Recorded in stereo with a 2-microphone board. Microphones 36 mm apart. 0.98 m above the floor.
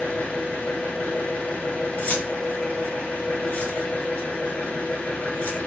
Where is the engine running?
80° left, 1.6 m.